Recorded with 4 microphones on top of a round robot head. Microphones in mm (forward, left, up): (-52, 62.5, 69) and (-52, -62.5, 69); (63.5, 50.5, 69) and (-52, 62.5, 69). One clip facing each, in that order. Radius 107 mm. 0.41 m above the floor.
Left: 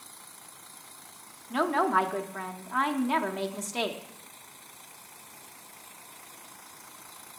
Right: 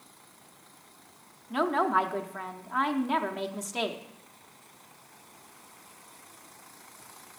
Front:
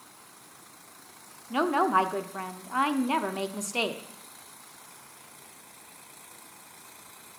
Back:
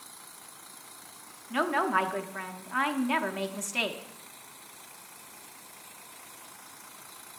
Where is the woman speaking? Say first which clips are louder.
Even, front 3 dB; straight ahead, 0.8 m.